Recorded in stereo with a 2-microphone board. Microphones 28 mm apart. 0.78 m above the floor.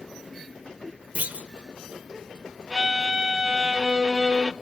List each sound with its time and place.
1.1 s a clunk: 75° right (ahead or behind), 0.9 m
2.7 s a violin: 30° right (ahead or behind), 0.5 m